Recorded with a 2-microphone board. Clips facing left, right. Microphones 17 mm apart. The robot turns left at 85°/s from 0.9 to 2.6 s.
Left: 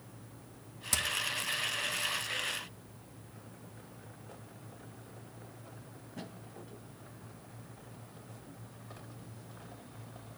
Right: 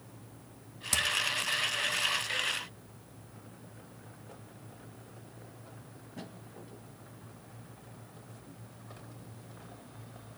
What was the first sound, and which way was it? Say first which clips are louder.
Hammering: right 3 dB; 15° right (ahead or behind).